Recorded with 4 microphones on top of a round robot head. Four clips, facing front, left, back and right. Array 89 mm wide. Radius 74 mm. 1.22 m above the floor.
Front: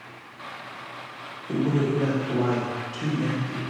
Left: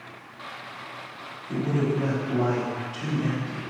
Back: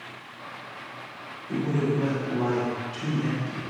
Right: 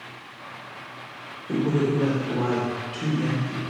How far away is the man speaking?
About 3.5 m.